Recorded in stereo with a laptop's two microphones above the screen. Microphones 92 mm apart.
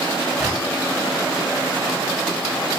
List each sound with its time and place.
0.4 s a gunshot: 5° left (ahead or behind), 8 m